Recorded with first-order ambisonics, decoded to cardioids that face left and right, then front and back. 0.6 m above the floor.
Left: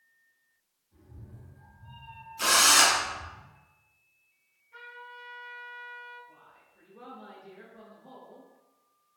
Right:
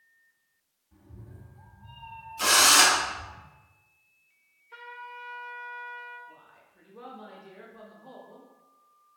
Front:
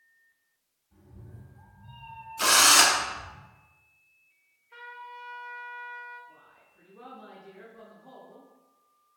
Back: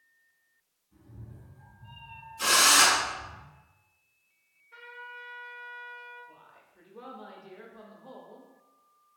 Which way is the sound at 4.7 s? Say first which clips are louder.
Right 3 dB, front 1 dB; 65° right.